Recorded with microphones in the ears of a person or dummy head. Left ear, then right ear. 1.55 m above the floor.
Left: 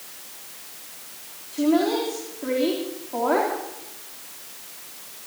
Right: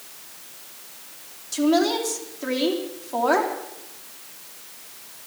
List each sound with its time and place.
1.5 s a woman speaking: 80° right, 3.5 m